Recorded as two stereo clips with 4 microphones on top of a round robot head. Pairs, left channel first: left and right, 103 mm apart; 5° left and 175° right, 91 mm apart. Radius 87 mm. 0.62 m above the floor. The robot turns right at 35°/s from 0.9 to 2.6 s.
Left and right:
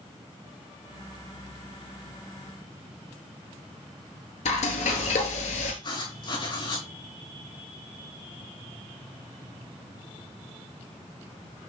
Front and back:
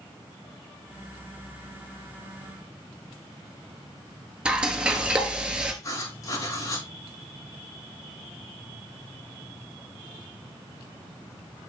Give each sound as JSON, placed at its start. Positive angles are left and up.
{"t": 4.5, "sound": "frying", "azimuth_deg": 105, "distance_m": 1.8}
{"t": 5.8, "sound": "writing", "azimuth_deg": 50, "distance_m": 5.0}